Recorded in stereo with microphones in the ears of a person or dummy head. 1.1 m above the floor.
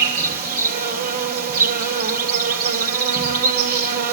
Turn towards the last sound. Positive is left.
turn(degrees=-50)  # may be behind; listen again after turning